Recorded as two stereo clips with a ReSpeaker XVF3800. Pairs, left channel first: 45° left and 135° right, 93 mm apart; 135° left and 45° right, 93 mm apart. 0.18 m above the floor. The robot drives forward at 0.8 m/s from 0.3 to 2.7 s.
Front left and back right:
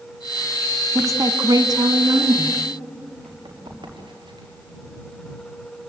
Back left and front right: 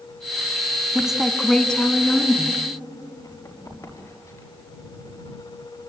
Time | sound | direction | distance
0.9 | a woman speaking | 120° right | 1.3 m
3.2 | running footsteps | 170° right | 6.5 m